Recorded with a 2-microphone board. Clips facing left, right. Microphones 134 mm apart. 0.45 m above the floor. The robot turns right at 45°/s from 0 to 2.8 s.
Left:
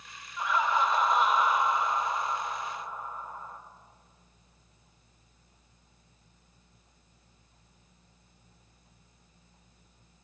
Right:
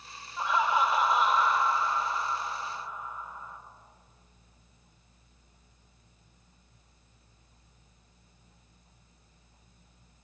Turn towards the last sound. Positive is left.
turn(degrees=70)